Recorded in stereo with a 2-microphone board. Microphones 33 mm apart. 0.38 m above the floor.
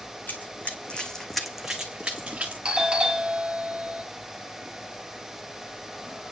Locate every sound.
0.3 s running footsteps: 60° left (ahead or behind), 1.9 m; by 2.5 s 35° right (ahead or behind), 2.5 m
2.6 s a doorbell: 25° right (ahead or behind), 1.6 m